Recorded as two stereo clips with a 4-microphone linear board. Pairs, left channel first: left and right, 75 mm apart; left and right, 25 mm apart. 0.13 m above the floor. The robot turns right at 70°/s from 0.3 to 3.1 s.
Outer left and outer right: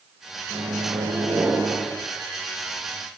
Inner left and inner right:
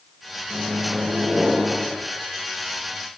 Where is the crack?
I don't hear a crack.